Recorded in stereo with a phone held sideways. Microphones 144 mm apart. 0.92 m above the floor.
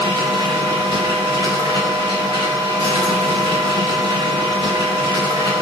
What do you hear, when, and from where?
0.0 s a machine running: 25° left (ahead or behind), 0.8 m